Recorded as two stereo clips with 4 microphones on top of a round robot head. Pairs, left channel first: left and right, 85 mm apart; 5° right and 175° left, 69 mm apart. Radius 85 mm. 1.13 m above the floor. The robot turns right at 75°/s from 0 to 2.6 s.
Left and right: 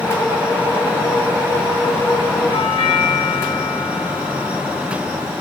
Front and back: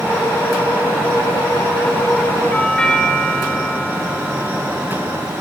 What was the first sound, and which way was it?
A doorbell, 65° left.